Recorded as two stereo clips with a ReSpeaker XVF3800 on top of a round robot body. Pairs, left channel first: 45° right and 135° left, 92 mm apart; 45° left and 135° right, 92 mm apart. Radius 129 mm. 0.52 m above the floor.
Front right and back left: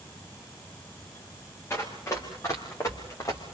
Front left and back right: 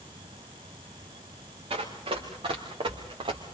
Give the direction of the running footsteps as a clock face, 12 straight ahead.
4 o'clock.